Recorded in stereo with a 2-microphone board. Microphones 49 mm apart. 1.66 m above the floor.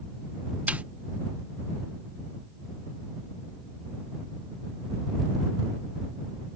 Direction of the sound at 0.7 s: 30° right (ahead or behind).